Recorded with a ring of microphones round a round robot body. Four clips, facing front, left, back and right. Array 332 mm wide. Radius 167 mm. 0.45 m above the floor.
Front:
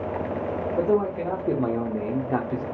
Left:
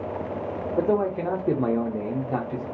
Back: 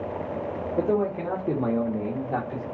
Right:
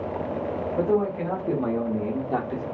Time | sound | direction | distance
0.7 | a man speaking | 105° left | 1.0 m